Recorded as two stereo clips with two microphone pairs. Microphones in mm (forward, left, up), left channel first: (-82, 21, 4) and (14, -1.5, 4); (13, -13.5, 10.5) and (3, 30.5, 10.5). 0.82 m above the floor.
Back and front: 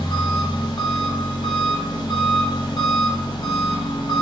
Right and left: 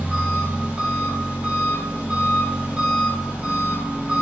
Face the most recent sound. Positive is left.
turn(degrees=155)